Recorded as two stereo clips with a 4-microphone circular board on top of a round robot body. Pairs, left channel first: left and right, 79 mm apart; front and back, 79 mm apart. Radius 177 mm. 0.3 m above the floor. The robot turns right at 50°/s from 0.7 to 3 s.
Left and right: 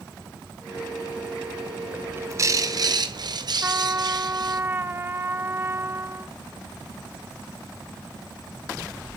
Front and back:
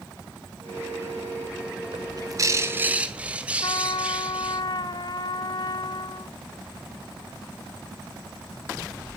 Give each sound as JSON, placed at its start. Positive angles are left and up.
{"t": 1.9, "sound": "a bird", "azimuth_deg": -160, "distance_m": 2.0}
{"t": 3.6, "sound": "a trumpet", "azimuth_deg": -30, "distance_m": 1.1}